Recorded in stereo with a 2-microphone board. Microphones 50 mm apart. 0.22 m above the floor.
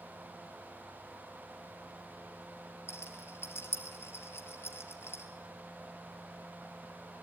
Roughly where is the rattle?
Left.